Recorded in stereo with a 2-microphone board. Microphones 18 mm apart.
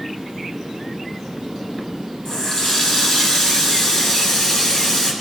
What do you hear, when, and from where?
2.2 s a running tap: 60° left (ahead or behind), 2.5 m